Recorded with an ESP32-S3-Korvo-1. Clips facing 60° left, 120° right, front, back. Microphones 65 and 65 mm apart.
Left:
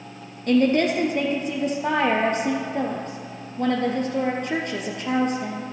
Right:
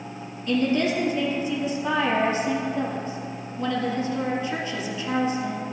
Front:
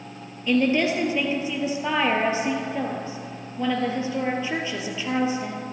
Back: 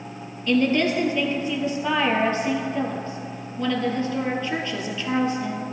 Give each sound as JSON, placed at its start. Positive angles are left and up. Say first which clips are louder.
{"t": 0.5, "sound": "a woman speaking", "louder": "left 4 dB, even", "azimuth_deg": 70, "distance_m": 2.0}